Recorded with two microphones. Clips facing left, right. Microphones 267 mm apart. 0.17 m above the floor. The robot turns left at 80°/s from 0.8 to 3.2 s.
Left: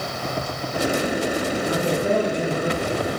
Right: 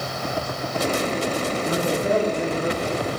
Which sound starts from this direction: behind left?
A man speaking, at 1.6 s.